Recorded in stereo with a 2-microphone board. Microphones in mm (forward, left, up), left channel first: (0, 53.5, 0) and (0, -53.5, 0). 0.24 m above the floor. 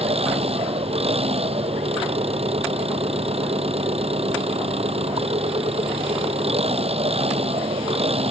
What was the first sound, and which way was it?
An engine running, 70° right (ahead or behind).